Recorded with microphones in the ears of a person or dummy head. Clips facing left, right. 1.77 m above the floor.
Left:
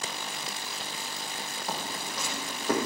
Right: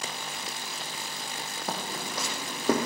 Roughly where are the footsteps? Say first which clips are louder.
Right 2 dB; right.